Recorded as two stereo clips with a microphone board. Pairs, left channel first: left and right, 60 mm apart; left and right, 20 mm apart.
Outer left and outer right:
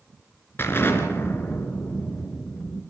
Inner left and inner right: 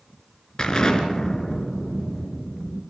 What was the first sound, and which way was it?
An explosion, 40° left (ahead or behind).